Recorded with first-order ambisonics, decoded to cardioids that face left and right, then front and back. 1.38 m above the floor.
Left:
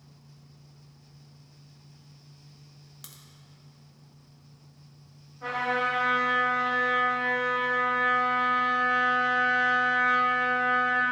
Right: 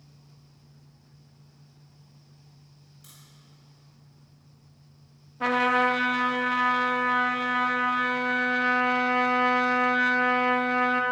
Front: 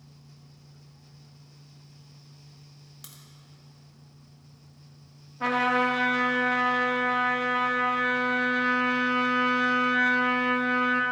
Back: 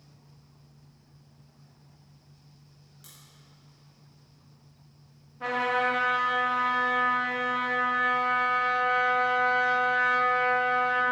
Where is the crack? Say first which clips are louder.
Left 4 dB, front 3 dB; 55° left, 1.1 m.